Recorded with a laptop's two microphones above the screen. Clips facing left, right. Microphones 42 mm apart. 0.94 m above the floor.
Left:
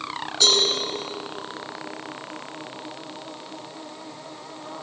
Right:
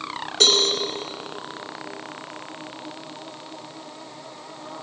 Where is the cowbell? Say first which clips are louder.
Right 1 dB; 75° right (ahead or behind), 4 m.